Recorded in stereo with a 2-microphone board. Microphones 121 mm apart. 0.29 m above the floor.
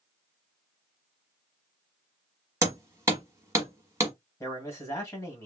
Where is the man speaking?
25° left (ahead or behind), 1.8 m.